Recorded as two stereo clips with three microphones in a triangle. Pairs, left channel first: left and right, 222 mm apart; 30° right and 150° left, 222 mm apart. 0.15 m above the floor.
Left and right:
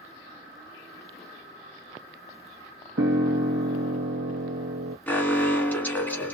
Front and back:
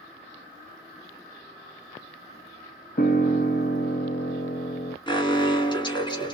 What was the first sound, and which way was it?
A piano, 75° right.